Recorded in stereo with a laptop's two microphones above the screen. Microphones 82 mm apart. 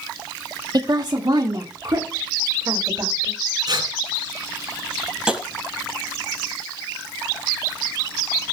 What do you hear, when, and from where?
0.7 s a woman speaking: 50° right (ahead or behind), 1.6 m; by 3.3 s 45° right (ahead or behind), 3.5 m
3.7 s tearing paper: 50° right (ahead or behind), 4 m
5.3 s tapping: 10° right (ahead or behind), 3.5 m